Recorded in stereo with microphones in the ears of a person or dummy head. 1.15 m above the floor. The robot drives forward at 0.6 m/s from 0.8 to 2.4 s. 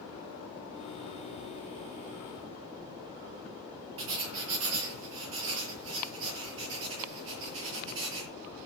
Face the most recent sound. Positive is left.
turn(degrees=-70)  # may be behind; listen again after turning